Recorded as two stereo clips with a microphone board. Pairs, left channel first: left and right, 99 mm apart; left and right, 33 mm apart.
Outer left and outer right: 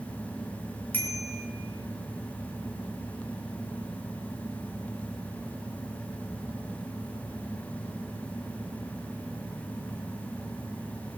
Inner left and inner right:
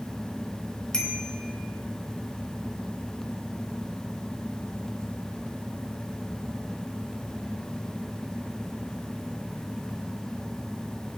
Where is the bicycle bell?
20° left (ahead or behind), 3 m.